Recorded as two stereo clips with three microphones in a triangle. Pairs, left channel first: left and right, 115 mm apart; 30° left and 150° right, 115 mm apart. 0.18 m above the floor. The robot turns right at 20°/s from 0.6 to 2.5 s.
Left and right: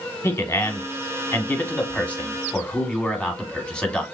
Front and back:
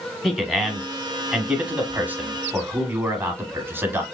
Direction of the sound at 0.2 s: 125° left.